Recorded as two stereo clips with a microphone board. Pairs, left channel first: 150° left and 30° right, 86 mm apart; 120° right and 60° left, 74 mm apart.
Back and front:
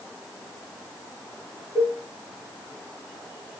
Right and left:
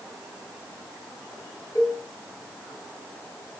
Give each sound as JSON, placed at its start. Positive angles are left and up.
{"t": 1.8, "sound": "a cowbell", "azimuth_deg": -80, "distance_m": 2.5}